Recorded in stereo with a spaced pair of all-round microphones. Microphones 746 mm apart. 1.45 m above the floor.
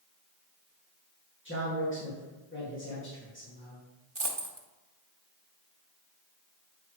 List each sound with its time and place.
1.4 s a man speaking: 15° left (ahead or behind), 2 m
4.2 s a dropped coin: 40° right (ahead or behind), 1.2 m